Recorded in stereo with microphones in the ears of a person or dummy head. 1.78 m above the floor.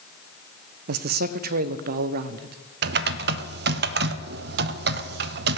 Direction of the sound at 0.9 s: 55° right (ahead or behind).